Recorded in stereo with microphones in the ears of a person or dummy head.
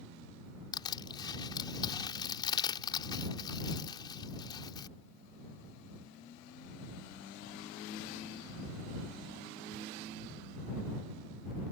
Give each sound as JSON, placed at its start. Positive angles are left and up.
{"t": 0.7, "sound": "crushing", "side_deg": 20}